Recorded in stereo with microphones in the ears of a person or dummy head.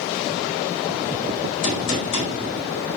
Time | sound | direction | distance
1.6 | a gunshot | 40° left (ahead or behind) | 3.5 m